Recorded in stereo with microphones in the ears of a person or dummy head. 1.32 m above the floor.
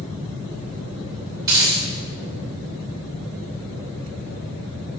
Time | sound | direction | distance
1.4 | a dropped coin | 20° right (ahead or behind) | 1.4 m